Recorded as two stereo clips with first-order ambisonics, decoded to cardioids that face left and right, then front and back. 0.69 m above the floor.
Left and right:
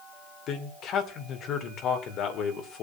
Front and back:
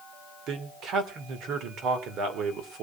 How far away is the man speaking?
About 2.5 m.